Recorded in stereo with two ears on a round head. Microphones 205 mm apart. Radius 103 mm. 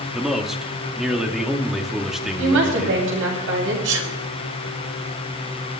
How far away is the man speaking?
About 2 m.